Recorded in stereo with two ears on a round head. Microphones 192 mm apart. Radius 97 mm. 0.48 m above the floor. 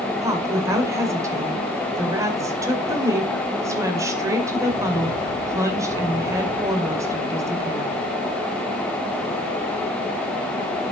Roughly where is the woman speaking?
Centre.